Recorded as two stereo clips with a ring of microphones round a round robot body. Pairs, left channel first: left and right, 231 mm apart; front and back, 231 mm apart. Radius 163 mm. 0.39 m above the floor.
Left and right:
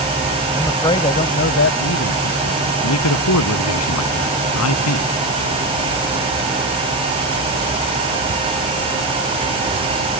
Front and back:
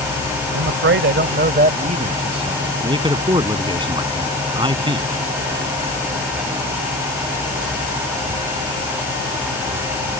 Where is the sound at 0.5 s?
Straight behind; by 2.7 s 110° left.